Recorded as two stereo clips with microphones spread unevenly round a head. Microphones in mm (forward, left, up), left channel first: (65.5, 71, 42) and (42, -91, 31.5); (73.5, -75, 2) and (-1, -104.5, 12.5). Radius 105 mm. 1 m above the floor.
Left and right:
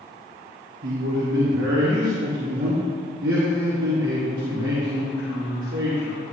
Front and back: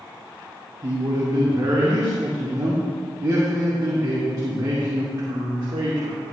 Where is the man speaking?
120° right, 2.5 m.